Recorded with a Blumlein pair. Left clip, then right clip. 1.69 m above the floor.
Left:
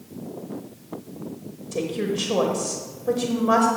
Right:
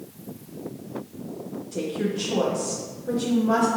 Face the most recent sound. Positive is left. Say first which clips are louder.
# left 2 dB
turn(degrees=15)